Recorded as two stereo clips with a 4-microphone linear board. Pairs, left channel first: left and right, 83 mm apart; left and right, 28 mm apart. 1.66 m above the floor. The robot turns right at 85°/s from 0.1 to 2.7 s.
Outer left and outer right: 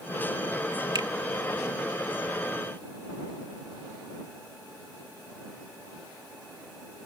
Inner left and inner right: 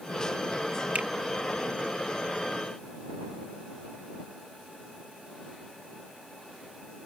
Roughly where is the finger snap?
Right.